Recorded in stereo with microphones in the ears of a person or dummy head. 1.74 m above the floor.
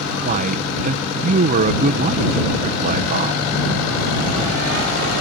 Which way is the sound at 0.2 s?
45° right (ahead or behind).